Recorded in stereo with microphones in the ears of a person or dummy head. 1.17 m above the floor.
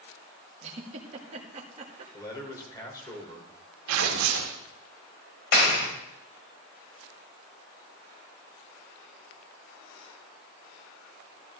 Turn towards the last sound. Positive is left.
turn(degrees=65)  # may be behind; listen again after turning